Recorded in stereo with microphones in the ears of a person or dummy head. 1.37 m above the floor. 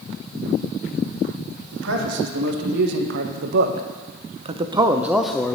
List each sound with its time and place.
1.7 s a man speaking: 75° right (ahead or behind), 1.8 m; by 5.5 s 15° left (ahead or behind), 0.6 m